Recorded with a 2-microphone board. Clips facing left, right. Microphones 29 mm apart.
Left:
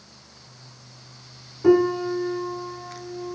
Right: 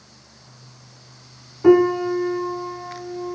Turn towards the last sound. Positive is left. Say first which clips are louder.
# right 4 dB
turn(degrees=-20)  # may be behind; listen again after turning